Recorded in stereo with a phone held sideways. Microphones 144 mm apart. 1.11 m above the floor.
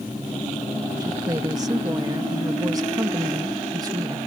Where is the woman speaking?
25° right (ahead or behind).